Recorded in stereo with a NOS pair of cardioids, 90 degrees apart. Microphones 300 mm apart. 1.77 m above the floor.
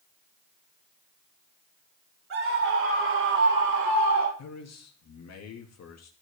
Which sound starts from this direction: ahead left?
A man speaking, at 4.4 s.